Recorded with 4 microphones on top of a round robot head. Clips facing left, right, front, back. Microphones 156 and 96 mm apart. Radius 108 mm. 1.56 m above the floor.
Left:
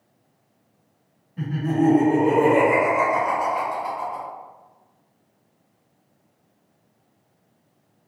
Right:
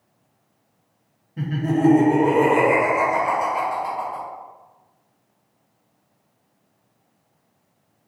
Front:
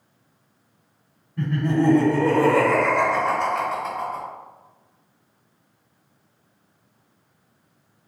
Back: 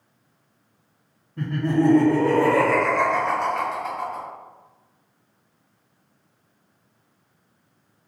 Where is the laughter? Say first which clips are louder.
Right 1 dB, even; 120° right, 1.0 m; by 4.2 s 30° right, 1.3 m.